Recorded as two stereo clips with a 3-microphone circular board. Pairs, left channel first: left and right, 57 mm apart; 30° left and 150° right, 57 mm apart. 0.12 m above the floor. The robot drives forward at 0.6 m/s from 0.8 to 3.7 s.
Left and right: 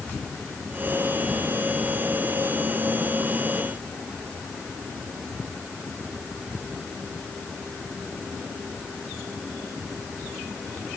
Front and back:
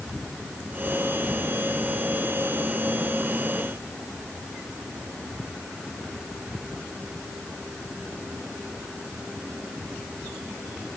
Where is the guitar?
No guitar in this recording.